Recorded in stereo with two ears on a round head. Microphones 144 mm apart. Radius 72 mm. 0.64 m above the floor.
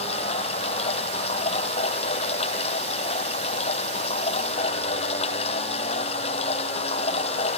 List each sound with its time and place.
0.0 s running water: 40° left (ahead or behind)